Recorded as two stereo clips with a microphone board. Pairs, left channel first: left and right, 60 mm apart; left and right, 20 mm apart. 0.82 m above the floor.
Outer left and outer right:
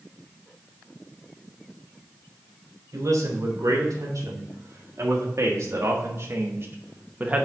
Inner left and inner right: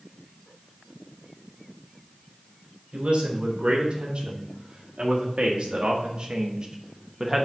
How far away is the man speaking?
About 3 m.